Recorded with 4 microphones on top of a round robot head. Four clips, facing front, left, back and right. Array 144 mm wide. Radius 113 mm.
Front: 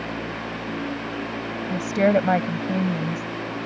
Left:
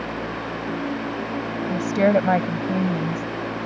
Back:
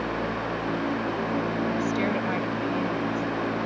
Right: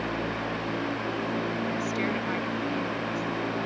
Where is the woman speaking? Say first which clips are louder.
Left 10 dB, front 6 dB; 50° left.